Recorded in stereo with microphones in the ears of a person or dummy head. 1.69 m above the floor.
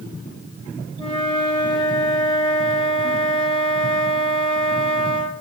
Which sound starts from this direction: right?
A flute, at 1.0 s.